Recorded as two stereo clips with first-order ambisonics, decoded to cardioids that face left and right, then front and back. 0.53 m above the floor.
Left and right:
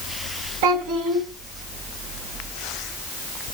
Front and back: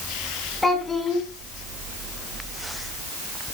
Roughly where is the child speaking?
Right.